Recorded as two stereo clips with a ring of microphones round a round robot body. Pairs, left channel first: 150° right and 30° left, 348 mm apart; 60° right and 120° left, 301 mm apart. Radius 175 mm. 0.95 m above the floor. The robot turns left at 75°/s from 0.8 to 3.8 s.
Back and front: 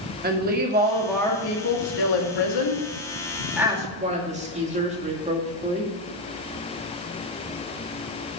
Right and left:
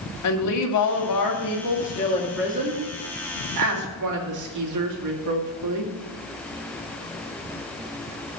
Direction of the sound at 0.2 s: 35° right.